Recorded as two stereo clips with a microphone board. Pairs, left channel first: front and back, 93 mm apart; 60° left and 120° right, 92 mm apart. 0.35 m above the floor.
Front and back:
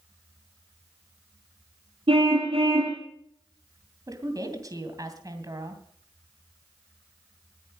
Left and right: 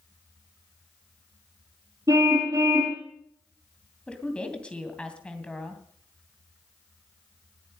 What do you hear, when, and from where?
2.1 s a car horn: 170° right, 7 m
4.1 s a woman speaking: 135° left, 2.5 m